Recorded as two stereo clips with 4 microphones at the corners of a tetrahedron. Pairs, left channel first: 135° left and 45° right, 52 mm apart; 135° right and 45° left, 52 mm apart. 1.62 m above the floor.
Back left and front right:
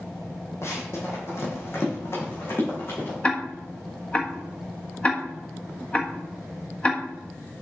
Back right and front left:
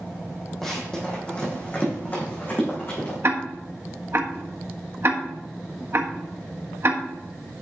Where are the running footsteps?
140° left, 3.5 m; by 3.1 s straight behind, 5.5 m.